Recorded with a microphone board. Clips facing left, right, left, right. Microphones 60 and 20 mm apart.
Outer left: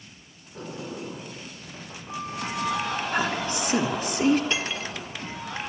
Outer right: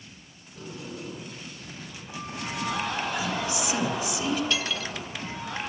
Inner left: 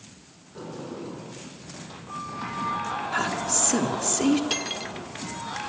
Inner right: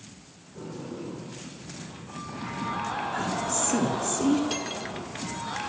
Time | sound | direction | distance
0.6 | a sliding door | 40° left (ahead or behind) | 9 m
3.1 | a woman speaking | 45° left (ahead or behind) | 2.5 m
4.5 | cutlery clinking | 30° left (ahead or behind) | 1.8 m